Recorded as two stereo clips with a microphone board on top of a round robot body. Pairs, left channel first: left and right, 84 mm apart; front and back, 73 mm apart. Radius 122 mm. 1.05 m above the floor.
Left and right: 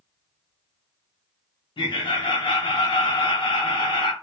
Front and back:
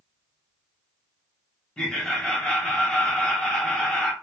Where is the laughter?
80° left, 1.0 m.